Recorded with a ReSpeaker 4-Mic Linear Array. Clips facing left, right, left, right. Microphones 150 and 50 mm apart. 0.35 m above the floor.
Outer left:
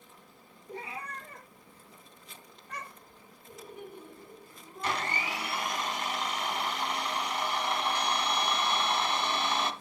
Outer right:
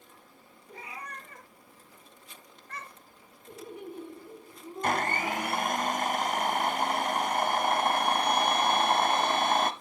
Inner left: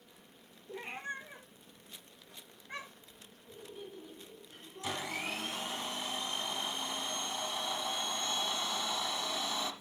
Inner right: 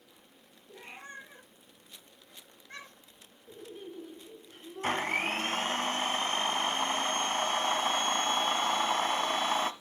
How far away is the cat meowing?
About 3.5 m.